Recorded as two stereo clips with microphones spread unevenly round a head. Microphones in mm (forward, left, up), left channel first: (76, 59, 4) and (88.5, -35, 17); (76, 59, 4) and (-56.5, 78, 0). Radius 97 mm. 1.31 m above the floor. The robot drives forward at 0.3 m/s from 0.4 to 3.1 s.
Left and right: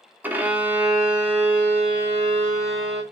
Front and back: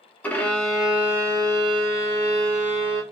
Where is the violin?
70° right, 0.5 m; by 3.0 s 165° right, 0.9 m.